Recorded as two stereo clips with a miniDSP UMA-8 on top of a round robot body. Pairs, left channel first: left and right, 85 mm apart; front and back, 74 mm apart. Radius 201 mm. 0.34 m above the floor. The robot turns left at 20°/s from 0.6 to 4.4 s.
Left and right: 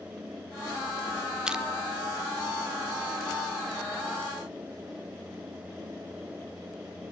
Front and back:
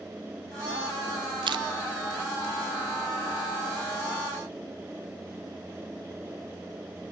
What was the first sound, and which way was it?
Crushing, 170° right.